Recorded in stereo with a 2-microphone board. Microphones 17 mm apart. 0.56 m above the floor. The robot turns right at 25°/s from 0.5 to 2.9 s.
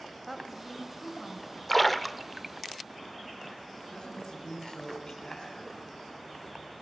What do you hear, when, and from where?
0.3 s a woman speaking: 10° right (ahead or behind), 3 m; by 1.6 s 15° left (ahead or behind), 3 m
1.7 s a splash: 10° left (ahead or behind), 0.8 m; by 2.8 s 15° right (ahead or behind), 0.8 m
3.9 s a man speaking: 55° left (ahead or behind), 5 m